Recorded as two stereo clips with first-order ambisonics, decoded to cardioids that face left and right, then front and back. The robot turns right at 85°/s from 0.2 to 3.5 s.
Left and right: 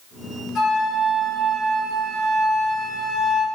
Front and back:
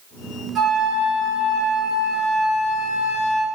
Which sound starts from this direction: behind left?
A flute, at 0.6 s.